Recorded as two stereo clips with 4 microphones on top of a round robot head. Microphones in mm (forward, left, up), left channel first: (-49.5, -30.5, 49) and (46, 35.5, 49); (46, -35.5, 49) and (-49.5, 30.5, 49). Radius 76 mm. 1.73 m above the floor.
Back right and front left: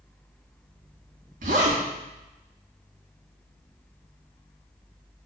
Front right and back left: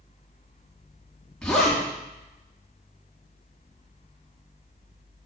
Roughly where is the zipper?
Ahead left.